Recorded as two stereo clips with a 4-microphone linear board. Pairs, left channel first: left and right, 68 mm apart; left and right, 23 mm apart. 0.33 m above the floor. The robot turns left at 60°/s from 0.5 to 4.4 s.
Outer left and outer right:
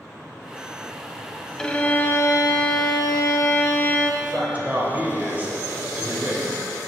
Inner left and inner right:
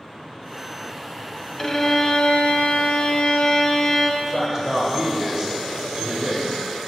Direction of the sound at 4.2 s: 20° right (ahead or behind).